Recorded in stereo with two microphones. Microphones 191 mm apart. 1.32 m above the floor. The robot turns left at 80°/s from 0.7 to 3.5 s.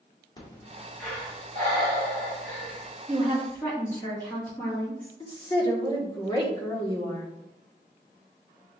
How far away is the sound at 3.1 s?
About 1.5 m.